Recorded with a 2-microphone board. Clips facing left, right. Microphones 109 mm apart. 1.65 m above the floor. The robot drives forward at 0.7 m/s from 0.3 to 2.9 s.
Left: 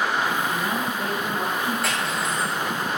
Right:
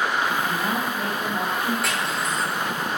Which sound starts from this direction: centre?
Cutlery clinking, at 1.8 s.